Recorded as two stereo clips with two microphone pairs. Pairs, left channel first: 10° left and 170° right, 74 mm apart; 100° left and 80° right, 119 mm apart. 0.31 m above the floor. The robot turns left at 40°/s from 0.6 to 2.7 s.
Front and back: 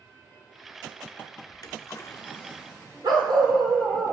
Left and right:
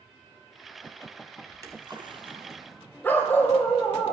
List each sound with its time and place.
1.5 s a splash: 15° right, 1.3 m; by 2.8 s 65° right, 1.3 m
3.0 s a dog barking: 175° left, 2.5 m